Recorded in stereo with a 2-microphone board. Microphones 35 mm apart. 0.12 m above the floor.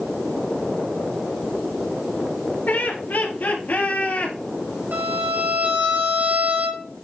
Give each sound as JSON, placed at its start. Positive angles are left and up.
{"t": 2.7, "sound": "laughter", "side_deg": 60, "distance_m": 2.5}
{"t": 4.9, "sound": "a violin", "side_deg": -65, "distance_m": 3.5}